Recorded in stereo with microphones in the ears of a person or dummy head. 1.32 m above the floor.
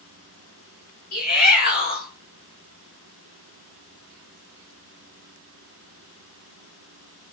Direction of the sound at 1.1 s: 50° left (ahead or behind).